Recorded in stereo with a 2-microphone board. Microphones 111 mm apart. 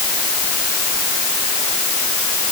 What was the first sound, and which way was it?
Only background noise.